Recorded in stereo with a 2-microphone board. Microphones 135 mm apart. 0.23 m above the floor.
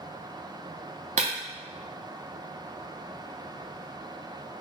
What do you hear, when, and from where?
1.2 s breaking glass: 60° right (ahead or behind), 0.6 m